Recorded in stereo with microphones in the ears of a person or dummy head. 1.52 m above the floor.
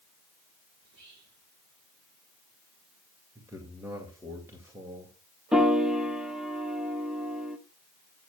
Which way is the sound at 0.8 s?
85° right.